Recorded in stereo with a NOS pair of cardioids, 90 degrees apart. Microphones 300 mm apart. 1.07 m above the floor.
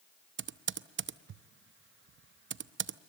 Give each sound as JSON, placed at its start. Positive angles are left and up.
{"t": 0.4, "sound": "typing on a keyboard", "azimuth_deg": -40, "distance_m": 0.7}